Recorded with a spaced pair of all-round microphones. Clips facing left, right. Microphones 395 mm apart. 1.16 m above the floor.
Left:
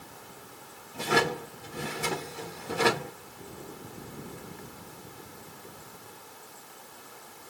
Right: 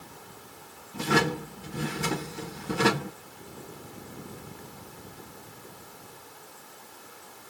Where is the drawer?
30° right (ahead or behind), 2.5 m.